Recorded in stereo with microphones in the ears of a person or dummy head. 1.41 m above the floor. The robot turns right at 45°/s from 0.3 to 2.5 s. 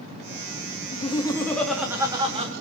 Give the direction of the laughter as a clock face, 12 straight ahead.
7 o'clock.